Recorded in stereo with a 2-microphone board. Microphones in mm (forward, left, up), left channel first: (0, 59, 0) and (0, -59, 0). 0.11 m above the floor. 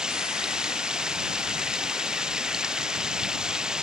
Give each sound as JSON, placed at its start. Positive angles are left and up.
{"t": 0.0, "sound": "running water", "side_deg": -5}